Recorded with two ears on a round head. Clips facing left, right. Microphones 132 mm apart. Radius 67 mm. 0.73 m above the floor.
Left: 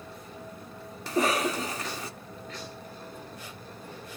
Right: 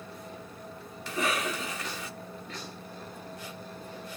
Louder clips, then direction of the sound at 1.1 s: Left 5 dB; 35° left (ahead or behind).